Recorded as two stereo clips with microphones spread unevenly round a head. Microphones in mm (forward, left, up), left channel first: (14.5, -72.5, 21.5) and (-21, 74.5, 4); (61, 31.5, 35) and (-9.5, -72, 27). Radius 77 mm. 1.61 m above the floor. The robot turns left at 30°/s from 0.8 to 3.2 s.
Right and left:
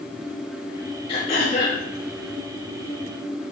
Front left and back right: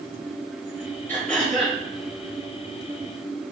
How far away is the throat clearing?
About 3 m.